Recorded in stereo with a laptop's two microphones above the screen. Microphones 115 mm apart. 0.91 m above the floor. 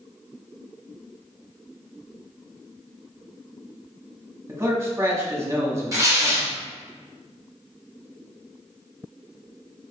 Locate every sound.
4.5 s a man speaking: 20° right (ahead or behind), 0.9 m
5.9 s tearing paper: 25° right (ahead or behind), 0.8 m